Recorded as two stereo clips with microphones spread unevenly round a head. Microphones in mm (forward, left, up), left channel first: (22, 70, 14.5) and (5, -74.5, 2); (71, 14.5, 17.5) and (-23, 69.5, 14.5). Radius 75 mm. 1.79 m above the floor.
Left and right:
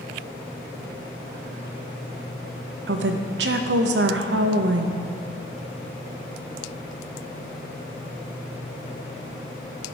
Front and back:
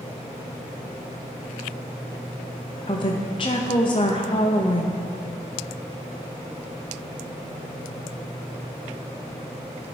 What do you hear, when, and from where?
2.9 s a woman speaking: 90° right, 0.9 m